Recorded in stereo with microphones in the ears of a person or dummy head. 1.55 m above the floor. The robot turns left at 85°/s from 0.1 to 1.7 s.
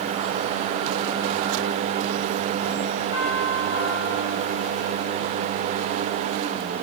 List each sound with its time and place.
3.1 s a doorbell: 85° left, 9 m